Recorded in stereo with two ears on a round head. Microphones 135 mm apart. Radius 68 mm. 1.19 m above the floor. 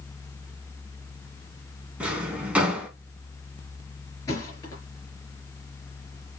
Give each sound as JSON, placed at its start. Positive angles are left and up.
{"t": 2.0, "sound": "a drawer", "side_deg": -10, "distance_m": 2.5}
{"t": 4.3, "sound": "a thud", "side_deg": 25, "distance_m": 4.0}